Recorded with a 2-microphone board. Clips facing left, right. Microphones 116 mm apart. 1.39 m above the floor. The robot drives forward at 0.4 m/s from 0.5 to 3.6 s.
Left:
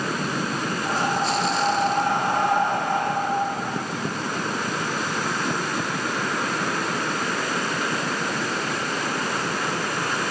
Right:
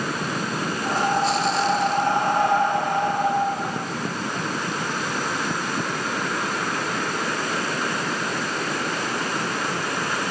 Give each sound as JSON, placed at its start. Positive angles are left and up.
{"t": 0.8, "sound": "breathing", "side_deg": 5, "distance_m": 0.5}